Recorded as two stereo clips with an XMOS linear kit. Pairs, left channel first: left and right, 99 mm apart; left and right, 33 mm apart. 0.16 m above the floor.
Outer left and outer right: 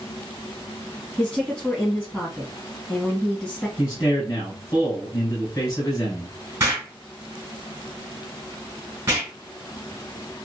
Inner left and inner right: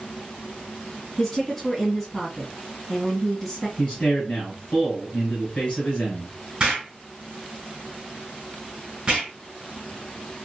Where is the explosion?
25° right (ahead or behind), 1.5 m.